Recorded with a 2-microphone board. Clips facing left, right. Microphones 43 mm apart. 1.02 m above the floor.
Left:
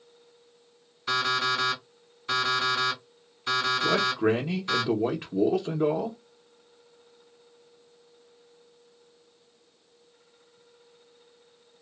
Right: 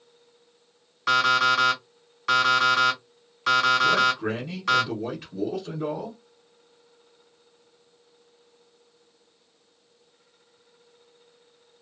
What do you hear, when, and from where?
1.1 s an alarm clock: 70° right (ahead or behind), 1.5 m
3.8 s a man speaking: 35° left (ahead or behind), 0.6 m